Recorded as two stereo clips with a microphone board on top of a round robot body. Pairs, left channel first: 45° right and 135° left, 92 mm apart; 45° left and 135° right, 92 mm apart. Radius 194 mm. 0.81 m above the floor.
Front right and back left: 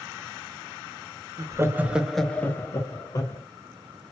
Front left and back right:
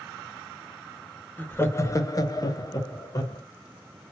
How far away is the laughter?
About 0.9 m.